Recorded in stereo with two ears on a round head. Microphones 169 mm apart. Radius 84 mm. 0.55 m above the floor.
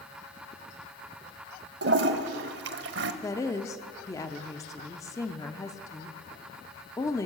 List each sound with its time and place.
1.8 s a toilet flushing: 65° right (ahead or behind), 0.7 m
3.2 s a woman speaking: 20° left (ahead or behind), 0.7 m